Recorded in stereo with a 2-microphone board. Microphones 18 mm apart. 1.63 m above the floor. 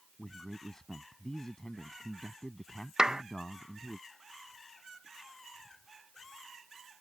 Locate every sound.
0.2 s a man speaking: 35° left (ahead or behind)
3.0 s a clap: 50° right (ahead or behind)